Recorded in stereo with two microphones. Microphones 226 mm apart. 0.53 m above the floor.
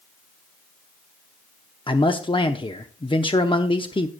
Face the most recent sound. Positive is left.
turn(degrees=20)  # may be behind; listen again after turning